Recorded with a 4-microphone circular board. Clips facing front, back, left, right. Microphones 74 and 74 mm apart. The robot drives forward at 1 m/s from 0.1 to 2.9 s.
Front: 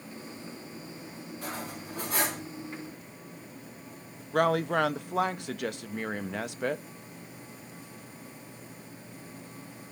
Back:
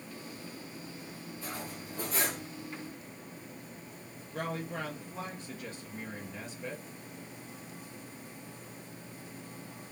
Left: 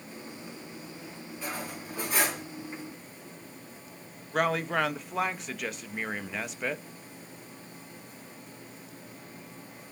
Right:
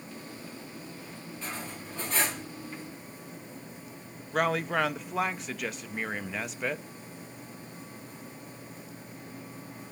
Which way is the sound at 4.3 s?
Straight ahead.